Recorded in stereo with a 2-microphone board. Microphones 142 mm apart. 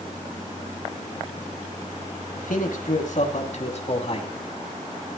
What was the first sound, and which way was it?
A man speaking, 70° left (ahead or behind).